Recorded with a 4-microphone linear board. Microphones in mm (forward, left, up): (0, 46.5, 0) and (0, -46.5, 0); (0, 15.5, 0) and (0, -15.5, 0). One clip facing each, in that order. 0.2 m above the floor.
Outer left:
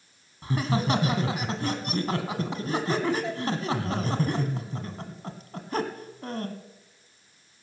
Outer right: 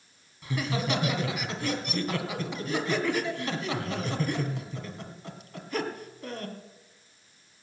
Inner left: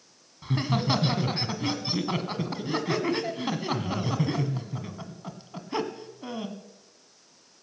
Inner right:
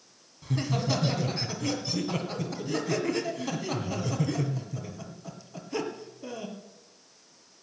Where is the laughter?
35° left (ahead or behind), 1.5 m.